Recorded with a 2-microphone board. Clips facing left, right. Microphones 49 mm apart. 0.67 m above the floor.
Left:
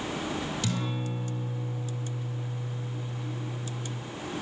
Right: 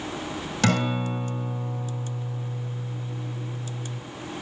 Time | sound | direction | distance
0.6 | a guitar | 80° right | 1.6 m